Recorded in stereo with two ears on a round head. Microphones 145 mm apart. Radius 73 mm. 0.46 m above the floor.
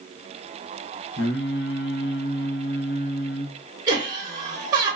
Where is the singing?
70° left (ahead or behind), 0.6 m.